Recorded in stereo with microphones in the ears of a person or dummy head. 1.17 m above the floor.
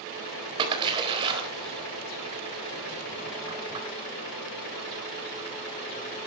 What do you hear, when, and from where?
0.6 s a splash: 25° right (ahead or behind), 4 m